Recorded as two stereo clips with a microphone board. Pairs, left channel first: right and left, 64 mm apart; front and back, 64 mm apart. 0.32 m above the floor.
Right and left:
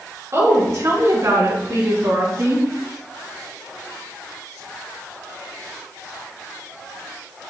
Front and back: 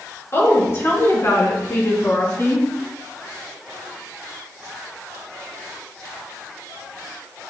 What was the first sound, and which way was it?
A woman speaking, 50° left.